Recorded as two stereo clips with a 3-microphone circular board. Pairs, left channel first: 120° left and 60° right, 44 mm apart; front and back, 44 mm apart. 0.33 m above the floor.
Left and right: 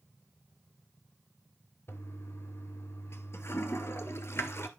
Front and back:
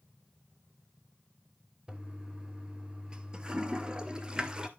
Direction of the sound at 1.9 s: 110° left.